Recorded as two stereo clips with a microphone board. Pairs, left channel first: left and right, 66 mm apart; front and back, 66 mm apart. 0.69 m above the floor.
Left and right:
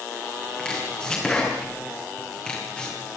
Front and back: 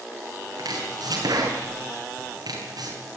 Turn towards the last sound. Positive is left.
turn(degrees=165)